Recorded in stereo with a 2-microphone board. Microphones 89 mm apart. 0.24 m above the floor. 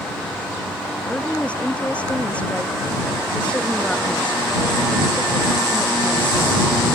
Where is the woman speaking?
15° left (ahead or behind).